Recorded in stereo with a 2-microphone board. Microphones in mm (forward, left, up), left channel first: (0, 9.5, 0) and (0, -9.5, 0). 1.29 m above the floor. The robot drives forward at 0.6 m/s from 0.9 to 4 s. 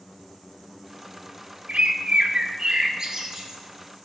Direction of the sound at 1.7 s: 75° right (ahead or behind).